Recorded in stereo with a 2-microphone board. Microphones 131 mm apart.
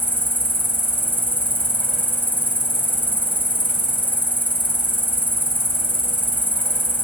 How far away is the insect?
About 0.7 m.